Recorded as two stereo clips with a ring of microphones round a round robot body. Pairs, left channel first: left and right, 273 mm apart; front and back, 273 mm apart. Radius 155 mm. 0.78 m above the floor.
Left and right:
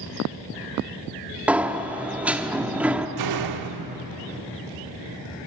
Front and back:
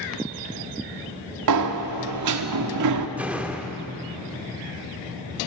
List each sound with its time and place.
1.5 s a sliding door: 175° right, 1.6 m
3.2 s a door slam: 95° right, 1.2 m